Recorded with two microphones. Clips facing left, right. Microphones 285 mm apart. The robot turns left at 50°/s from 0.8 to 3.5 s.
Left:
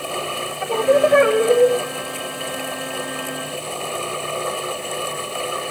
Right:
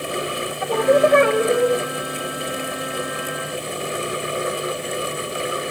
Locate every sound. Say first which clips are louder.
0.6 s singing: even; 175° right, 3 m; by 1.8 s 140° left, 3 m